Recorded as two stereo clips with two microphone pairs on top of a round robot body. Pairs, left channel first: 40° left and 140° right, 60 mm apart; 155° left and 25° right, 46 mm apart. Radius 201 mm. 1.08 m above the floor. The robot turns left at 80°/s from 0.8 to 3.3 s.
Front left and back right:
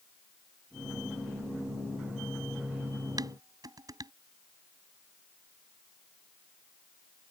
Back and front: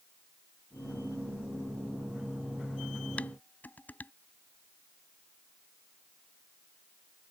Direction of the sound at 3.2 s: 145° right.